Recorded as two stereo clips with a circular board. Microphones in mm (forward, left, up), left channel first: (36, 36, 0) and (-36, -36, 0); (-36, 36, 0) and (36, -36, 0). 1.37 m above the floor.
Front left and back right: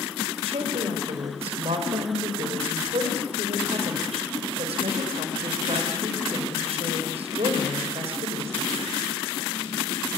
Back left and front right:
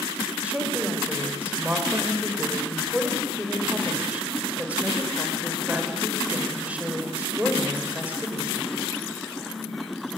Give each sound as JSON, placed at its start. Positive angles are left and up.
{"t": 0.4, "sound": "a woman speaking", "azimuth_deg": -125, "distance_m": 5.5}